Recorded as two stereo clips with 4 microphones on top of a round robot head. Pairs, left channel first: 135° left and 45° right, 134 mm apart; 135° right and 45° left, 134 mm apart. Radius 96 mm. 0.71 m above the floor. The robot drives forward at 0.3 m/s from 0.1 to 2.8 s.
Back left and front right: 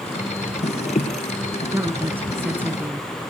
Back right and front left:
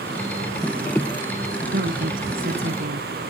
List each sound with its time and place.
1.7 s a woman speaking: 30° left